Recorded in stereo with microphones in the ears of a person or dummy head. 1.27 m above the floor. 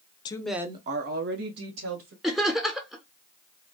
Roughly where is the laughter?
Centre.